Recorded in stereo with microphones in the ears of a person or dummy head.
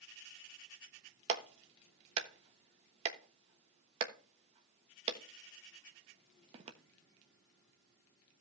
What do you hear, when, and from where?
1.3 s a clap: 40° right (ahead or behind), 1.2 m